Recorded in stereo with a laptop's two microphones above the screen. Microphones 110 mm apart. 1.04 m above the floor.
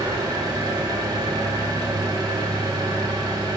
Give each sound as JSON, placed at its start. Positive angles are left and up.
{"t": 0.0, "sound": "an engine running", "side_deg": -40, "distance_m": 2.5}